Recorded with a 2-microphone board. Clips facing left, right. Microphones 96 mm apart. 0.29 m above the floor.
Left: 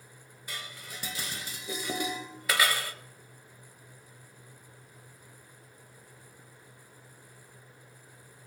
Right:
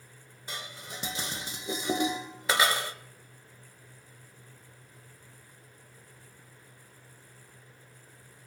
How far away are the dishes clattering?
About 0.7 m.